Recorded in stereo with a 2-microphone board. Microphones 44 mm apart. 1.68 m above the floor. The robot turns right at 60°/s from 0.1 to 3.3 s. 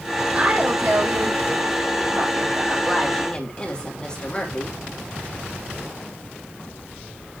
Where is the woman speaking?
155° right, 3 m; by 4.8 s 20° left, 3 m.